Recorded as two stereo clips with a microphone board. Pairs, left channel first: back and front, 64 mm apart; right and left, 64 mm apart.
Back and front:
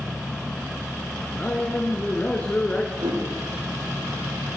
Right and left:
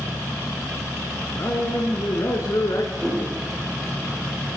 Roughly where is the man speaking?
Behind right.